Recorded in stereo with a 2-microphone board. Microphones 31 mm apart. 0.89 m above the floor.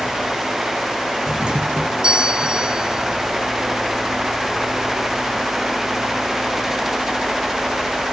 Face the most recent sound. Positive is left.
turn(degrees=-30)  # may be behind; listen again after turning